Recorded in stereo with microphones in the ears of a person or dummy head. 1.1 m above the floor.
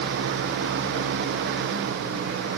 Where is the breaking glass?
I don't hear breaking glass.